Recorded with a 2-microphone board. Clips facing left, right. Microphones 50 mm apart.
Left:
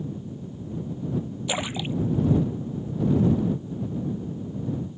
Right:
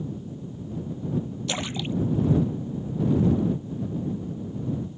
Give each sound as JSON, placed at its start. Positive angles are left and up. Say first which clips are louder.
{"t": 1.5, "sound": "a splash", "louder": "left 2 dB", "side_deg": 10}